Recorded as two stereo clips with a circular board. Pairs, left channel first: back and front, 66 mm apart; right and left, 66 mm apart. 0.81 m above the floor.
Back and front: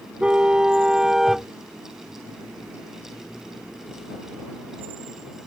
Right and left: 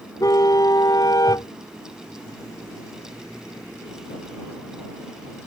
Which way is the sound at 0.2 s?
70° right.